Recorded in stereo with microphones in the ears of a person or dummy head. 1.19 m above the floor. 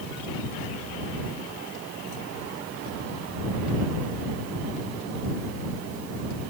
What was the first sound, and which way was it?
Only background noise.